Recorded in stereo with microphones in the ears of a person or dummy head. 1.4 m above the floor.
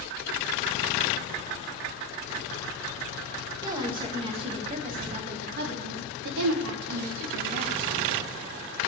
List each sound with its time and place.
3.6 s a woman speaking: 15° right (ahead or behind), 2 m; by 8.1 s 80° right, 1.8 m